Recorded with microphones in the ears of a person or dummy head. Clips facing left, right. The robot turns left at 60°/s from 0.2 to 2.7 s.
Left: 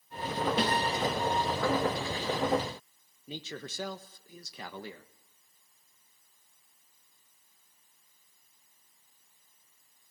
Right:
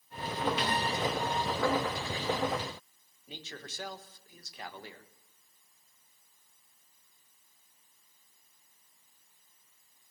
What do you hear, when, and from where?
0.6 s a snare drum: 35° left (ahead or behind), 6 m; by 0.7 s 25° left (ahead or behind), 6 m
3.3 s a man speaking: 80° left, 1.3 m